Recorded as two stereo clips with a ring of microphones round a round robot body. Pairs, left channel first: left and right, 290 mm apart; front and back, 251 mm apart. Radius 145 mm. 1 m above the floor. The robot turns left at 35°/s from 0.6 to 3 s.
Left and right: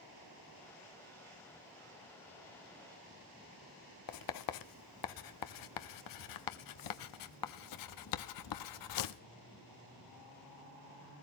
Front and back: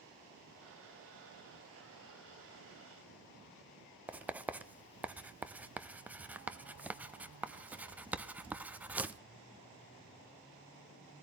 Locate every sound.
4.1 s writing: 95° left, 0.7 m